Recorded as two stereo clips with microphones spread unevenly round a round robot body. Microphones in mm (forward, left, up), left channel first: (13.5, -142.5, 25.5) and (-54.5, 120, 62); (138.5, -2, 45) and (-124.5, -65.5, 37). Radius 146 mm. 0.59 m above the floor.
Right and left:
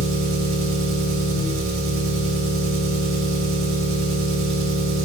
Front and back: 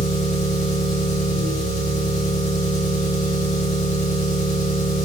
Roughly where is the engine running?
Left.